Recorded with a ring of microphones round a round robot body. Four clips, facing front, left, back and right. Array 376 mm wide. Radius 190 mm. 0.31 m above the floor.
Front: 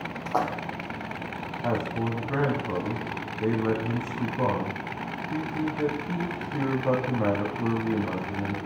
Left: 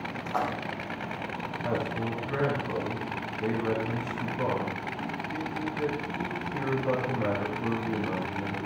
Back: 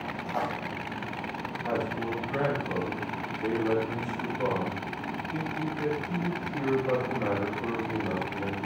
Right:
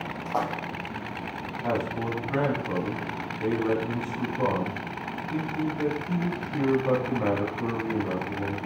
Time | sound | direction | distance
0.2 | a splash | 20° right | 3 m
1.6 | a man speaking | 20° right | 3 m